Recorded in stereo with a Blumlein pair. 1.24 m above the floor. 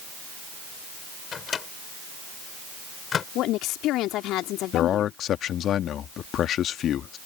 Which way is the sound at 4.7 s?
30° left.